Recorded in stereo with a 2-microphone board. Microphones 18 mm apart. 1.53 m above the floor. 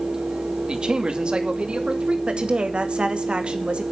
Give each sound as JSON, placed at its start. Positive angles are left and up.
{"t": 0.7, "sound": "a man speaking", "side_deg": -55, "distance_m": 2.5}
{"t": 2.3, "sound": "a woman speaking", "side_deg": -75, "distance_m": 2.0}